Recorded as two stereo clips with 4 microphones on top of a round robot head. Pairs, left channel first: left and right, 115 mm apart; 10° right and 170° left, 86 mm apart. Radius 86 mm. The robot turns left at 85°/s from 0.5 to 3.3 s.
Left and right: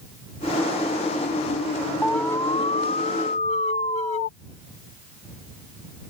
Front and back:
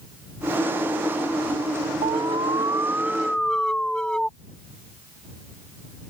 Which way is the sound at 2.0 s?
Straight behind.